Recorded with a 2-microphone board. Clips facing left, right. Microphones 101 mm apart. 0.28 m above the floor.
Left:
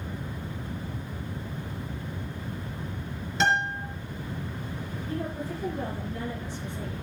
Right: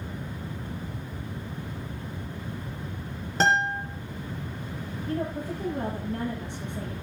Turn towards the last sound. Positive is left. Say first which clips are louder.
# right 3 dB
turn(degrees=-65)  # may be behind; listen again after turning